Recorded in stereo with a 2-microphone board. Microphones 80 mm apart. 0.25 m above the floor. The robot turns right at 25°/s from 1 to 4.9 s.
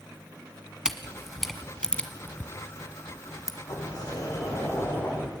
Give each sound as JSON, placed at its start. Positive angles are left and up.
{"t": 0.8, "sound": "a camera shutter", "side_deg": -5, "distance_m": 1.6}
{"t": 3.7, "sound": "a sliding door", "azimuth_deg": 120, "distance_m": 7.5}